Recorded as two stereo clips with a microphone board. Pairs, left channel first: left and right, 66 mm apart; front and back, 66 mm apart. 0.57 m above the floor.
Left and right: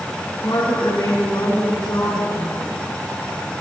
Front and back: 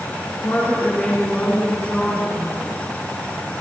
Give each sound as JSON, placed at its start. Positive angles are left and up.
{"t": 0.4, "sound": "a woman speaking", "azimuth_deg": 60, "distance_m": 6.5}